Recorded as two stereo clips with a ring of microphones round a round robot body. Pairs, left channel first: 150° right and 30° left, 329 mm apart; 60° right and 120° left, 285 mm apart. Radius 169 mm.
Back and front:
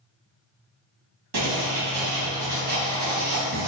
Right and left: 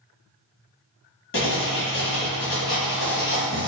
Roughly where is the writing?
Ahead.